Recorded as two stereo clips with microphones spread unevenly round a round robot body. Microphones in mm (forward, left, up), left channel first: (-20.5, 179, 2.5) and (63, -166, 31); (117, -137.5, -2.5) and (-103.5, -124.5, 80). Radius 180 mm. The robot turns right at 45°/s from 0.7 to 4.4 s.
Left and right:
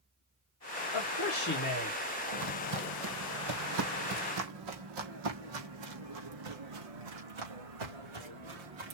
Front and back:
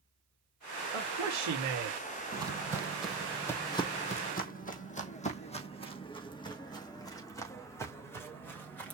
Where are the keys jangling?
I don't hear keys jangling.